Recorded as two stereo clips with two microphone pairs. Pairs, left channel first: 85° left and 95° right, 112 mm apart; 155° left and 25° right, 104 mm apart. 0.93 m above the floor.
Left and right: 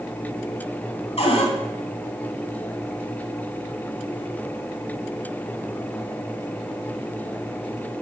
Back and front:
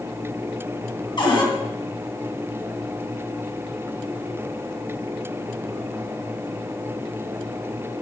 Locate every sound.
1.2 s a cupboard door: 115° left, 3 m